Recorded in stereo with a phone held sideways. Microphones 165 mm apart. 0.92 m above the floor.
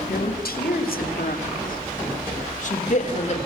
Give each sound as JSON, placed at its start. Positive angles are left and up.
{"t": 0.1, "sound": "a woman speaking", "side_deg": 75, "distance_m": 2.5}